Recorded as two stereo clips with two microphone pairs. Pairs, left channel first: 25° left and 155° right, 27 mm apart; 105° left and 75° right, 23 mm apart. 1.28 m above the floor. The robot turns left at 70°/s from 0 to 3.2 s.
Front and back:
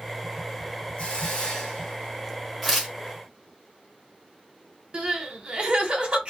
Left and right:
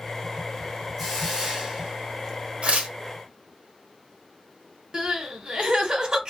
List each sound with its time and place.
1.0 s a hiss: straight ahead, 1.2 m; by 2.4 s 100° right, 1.2 m
2.6 s tearing paper: 70° right, 0.9 m; by 2.9 s 90° right, 0.9 m
4.9 s crying: 125° right, 1.0 m